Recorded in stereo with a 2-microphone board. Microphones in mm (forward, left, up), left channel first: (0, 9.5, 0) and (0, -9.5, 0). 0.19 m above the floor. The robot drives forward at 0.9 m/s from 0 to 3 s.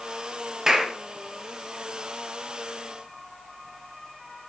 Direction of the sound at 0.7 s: 30° right (ahead or behind).